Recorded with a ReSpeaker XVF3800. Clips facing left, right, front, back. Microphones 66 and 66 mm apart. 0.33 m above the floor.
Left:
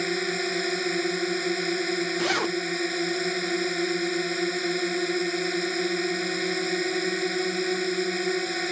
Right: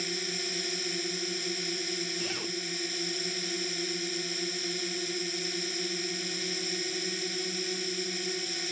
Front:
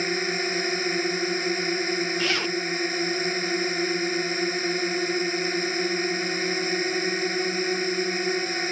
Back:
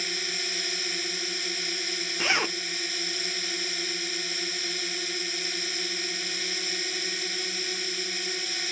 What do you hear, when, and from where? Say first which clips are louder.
0.0 s a drone: left 9 dB, front 8 dB; 55° left
2.2 s a zipper: left 11 dB, front 1 dB; 110° left